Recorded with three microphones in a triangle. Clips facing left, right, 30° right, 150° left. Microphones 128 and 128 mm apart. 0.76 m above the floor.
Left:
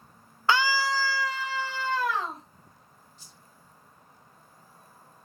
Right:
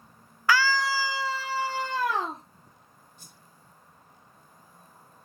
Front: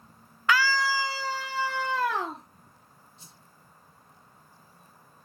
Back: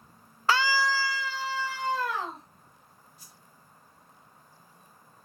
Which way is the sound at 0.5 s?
130° left.